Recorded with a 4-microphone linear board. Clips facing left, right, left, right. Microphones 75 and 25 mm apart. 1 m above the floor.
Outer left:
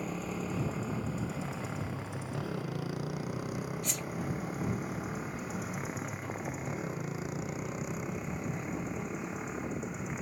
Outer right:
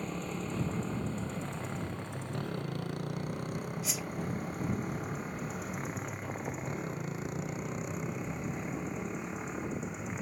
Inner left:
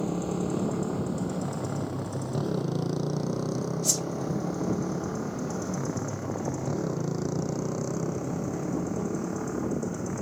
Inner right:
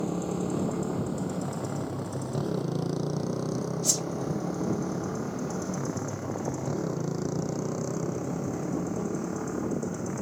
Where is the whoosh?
5° right (ahead or behind).